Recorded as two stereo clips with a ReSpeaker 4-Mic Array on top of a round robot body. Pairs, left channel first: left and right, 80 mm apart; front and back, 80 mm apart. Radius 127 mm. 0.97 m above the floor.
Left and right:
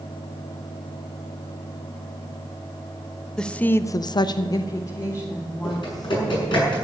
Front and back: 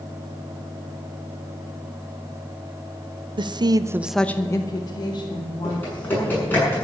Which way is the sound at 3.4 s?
170° left.